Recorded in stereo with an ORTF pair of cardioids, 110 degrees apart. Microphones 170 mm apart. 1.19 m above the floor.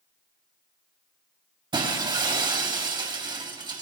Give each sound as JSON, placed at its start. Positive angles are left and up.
{"t": 1.7, "sound": "breaking glass", "azimuth_deg": -30, "distance_m": 2.5}